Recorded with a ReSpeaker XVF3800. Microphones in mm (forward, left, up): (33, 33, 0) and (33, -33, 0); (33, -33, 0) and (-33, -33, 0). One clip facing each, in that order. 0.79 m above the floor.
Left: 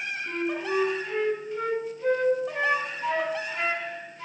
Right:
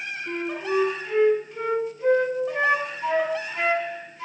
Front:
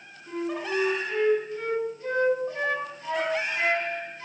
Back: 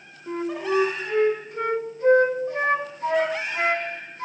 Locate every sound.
0.3 s a flute: 175° right, 1.5 m